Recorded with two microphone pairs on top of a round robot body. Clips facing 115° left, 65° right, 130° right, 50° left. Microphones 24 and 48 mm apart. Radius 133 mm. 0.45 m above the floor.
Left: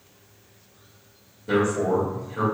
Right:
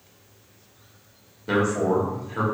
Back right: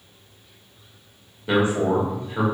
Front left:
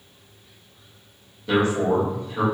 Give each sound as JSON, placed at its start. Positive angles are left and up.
{"t": 1.5, "sound": "a man speaking", "azimuth_deg": -80, "distance_m": 1.5}